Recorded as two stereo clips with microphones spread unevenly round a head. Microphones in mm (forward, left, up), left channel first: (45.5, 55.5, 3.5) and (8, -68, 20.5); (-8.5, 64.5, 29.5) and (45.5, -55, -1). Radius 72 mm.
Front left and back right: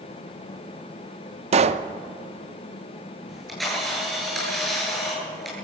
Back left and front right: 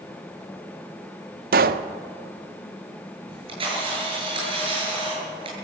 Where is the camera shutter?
15° right, 9.5 m.